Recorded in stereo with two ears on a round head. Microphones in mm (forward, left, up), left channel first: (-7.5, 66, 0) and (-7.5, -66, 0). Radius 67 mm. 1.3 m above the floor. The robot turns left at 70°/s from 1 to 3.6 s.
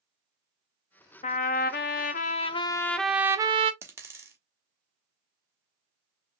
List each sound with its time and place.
1.2 s a trumpet: 125° left, 0.5 m; by 3.7 s 40° right, 0.5 m
3.8 s a dropped coin: 15° right (ahead or behind), 1.2 m